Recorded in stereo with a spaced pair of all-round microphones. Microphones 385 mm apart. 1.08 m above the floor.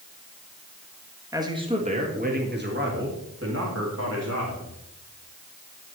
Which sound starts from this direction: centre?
A man speaking, at 1.3 s.